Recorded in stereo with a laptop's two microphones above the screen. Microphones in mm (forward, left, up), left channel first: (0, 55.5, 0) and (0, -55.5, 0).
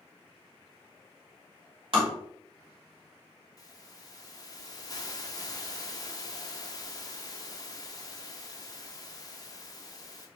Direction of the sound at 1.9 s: 55° right (ahead or behind).